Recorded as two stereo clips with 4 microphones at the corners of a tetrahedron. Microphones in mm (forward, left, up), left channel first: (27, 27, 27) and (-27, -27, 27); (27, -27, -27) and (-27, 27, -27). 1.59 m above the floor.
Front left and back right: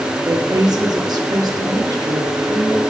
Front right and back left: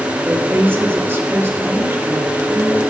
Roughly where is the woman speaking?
Behind.